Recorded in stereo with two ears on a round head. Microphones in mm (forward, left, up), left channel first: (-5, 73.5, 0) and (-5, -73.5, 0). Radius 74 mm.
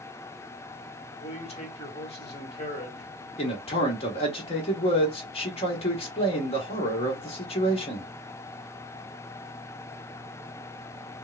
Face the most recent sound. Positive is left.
turn(degrees=35)  # may be behind; listen again after turning